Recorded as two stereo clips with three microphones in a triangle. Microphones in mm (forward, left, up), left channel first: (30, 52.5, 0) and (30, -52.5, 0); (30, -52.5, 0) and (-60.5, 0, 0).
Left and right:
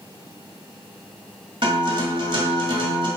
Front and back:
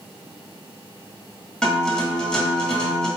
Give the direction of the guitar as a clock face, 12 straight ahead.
4 o'clock.